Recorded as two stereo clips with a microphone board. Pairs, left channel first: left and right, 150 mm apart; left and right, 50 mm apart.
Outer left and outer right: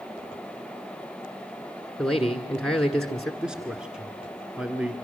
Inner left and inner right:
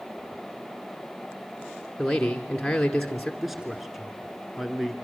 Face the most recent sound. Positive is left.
turn(degrees=-5)  # may be behind; listen again after turning